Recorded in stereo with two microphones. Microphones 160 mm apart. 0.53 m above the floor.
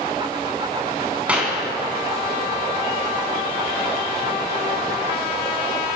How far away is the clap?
About 4.5 m.